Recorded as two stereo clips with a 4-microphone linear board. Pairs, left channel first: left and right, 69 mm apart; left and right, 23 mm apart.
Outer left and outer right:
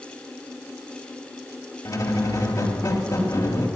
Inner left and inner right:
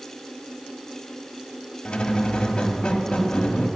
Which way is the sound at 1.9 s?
55° left (ahead or behind).